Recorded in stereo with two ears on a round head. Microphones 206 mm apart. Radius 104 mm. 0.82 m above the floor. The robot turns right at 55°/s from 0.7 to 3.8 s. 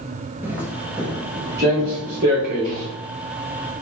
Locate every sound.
0.4 s footsteps: 10° right (ahead or behind), 0.9 m; by 2.9 s 55° right (ahead or behind), 3.5 m